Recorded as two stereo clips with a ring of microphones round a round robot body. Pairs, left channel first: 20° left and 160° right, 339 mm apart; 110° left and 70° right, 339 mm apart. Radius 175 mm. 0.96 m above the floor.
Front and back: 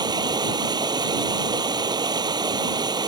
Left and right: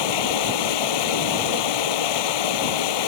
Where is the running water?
125° left.